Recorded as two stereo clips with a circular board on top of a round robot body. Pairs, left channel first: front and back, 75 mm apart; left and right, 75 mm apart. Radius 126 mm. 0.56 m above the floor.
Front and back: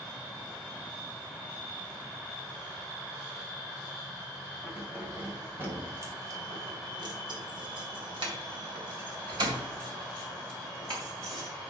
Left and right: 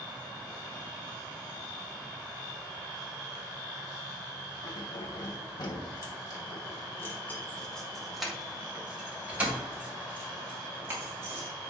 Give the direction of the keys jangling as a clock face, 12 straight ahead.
9 o'clock.